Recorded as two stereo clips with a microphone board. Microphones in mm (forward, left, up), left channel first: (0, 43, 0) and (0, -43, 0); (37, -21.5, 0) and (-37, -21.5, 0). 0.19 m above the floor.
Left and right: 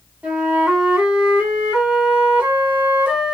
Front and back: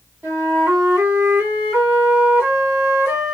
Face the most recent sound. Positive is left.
turn(degrees=-150)